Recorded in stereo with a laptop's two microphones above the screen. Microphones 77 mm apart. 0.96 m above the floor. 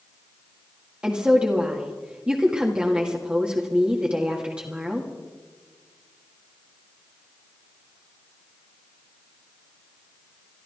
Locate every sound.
1.0 s a woman speaking: 15° right (ahead or behind), 1.8 m